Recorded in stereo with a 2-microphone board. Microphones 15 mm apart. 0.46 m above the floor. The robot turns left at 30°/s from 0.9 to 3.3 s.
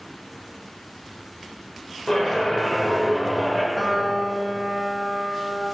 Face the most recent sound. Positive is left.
turn(degrees=-40)  # may be behind; listen again after turning